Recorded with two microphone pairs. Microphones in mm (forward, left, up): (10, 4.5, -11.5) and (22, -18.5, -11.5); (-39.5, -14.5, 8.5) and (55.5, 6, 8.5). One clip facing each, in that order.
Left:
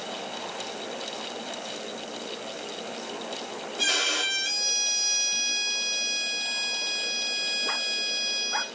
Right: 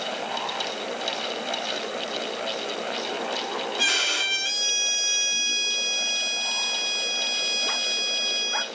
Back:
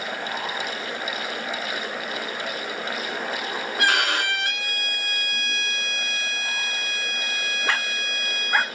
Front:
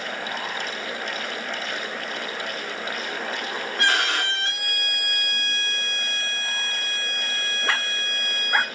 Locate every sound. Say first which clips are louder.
3.8 s a violin: right 2 dB, back 1 dB; 100° right, 1.3 m